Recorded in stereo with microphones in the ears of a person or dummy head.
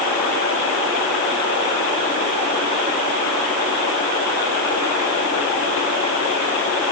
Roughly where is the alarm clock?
I don't hear an alarm clock.